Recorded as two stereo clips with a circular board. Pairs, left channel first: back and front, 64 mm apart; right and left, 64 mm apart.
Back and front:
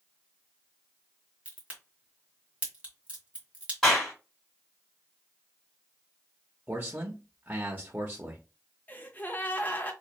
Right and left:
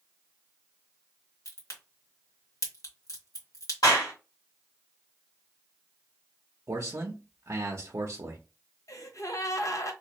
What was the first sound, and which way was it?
A crack, 70° right.